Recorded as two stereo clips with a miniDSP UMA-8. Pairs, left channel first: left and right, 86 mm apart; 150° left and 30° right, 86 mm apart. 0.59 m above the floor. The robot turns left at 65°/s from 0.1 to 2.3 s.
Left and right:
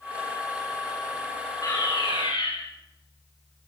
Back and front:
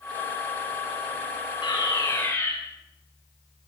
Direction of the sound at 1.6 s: 130° left.